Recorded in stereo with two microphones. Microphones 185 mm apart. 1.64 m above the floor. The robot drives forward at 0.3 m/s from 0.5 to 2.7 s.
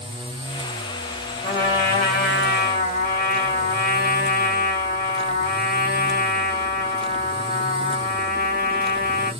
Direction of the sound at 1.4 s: 60° left (ahead or behind).